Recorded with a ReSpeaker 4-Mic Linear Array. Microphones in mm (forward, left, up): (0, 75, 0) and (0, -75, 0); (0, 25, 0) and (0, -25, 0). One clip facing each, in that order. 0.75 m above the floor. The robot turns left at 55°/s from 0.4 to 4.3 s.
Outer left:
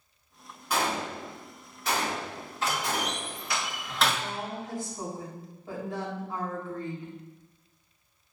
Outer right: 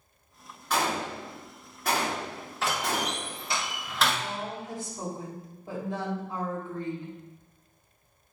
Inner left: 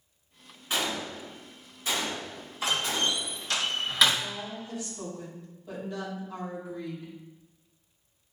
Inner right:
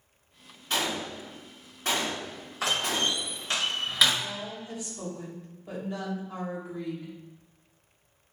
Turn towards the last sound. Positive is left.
turn(degrees=-25)  # may be behind; listen again after turning